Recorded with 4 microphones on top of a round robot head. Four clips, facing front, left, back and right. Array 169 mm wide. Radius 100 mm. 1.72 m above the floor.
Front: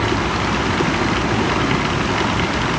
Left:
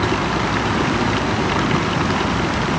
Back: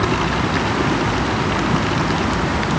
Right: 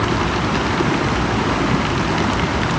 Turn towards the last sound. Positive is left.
No sound to turn to.